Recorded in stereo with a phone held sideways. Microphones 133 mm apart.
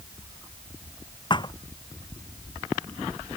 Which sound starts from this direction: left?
A thud, at 1.3 s.